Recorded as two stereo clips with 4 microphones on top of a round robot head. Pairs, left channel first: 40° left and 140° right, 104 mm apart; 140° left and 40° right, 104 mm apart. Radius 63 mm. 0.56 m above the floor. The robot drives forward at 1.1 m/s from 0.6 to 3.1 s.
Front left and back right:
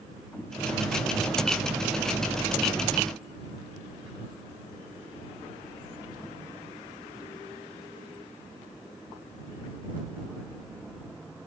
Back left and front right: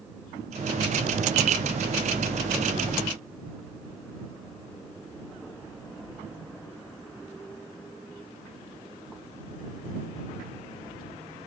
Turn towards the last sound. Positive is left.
No sound to turn to.